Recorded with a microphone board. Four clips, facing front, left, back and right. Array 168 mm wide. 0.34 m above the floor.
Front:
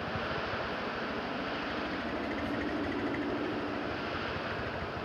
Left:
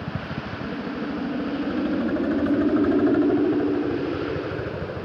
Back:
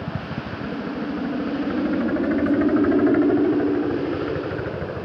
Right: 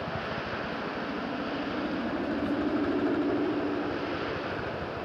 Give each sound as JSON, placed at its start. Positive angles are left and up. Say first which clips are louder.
{"t": 0.0, "sound": "a helicopter", "louder": "left 2 dB, back 5 dB", "azimuth_deg": 150}